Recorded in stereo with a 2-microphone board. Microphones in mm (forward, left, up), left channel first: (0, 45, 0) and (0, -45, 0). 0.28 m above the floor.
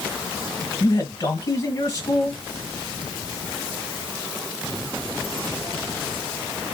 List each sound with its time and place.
0.8 s a man speaking: 35° left (ahead or behind), 1.4 m